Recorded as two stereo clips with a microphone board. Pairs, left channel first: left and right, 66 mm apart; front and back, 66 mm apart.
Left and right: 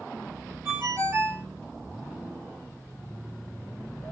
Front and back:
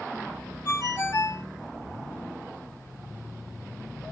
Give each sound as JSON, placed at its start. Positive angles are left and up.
{"t": 0.7, "sound": "a ringtone", "azimuth_deg": -45, "distance_m": 1.3}